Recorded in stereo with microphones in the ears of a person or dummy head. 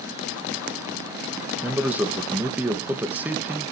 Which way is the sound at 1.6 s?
Centre (ahead or behind).